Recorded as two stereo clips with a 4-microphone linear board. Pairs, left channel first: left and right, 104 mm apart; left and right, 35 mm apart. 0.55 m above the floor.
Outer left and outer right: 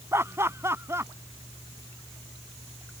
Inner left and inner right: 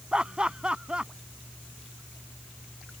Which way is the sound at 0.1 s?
25° right (ahead or behind).